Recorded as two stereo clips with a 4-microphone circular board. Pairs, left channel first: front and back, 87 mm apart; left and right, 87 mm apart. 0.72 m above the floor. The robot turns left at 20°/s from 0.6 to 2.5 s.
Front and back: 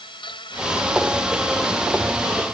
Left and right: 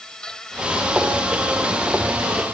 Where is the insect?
10° left; by 2.5 s 30° right.